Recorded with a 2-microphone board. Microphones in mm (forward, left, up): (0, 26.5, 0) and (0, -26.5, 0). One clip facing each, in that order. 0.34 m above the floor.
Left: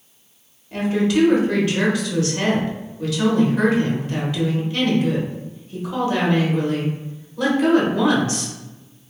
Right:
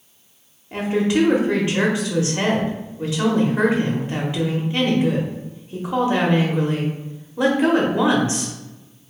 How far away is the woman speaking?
About 0.9 m.